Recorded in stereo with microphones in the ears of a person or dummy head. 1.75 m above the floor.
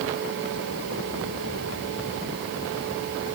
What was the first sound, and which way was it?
Only background noise.